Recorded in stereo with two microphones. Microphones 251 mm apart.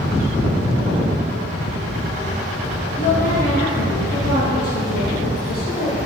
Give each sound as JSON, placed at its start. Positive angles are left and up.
{"t": 3.0, "sound": "a woman speaking", "side_deg": 30, "distance_m": 3.0}